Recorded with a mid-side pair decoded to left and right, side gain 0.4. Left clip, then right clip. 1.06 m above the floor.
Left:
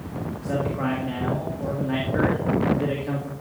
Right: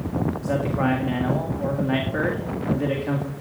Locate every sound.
0.4 s a man speaking: 40° right, 1.8 m